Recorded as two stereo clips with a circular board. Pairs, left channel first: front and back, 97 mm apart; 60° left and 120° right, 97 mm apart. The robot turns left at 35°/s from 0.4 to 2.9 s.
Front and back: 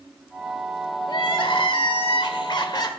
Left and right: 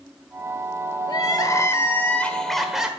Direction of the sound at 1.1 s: 25° left.